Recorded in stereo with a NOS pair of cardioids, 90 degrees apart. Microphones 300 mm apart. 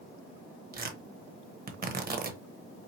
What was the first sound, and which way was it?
Tearing paper, 30° right.